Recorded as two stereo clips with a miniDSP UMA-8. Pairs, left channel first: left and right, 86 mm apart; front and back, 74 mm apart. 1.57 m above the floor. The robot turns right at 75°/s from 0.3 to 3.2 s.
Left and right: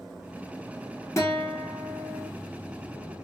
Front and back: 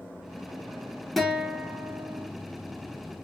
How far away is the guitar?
About 1.1 m.